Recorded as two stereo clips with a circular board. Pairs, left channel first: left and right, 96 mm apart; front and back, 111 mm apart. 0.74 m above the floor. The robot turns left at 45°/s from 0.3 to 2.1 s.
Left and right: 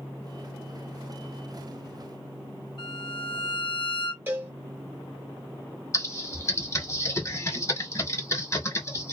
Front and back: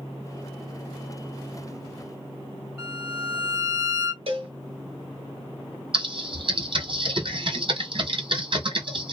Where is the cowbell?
160° right, 0.9 m.